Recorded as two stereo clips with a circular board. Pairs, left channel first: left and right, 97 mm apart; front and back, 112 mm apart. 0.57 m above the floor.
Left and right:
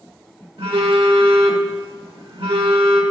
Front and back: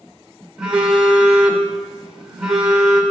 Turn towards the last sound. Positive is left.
turn(degrees=-95)